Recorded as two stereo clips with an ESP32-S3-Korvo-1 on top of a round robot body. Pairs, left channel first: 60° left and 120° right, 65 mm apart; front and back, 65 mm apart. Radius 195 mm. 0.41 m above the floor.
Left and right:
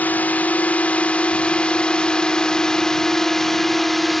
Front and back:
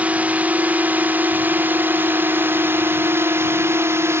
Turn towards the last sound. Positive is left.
turn(degrees=150)